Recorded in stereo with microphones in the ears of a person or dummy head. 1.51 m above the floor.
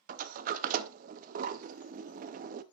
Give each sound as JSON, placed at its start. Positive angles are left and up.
{"t": 0.1, "sound": "a sliding door", "side_deg": -50, "distance_m": 0.6}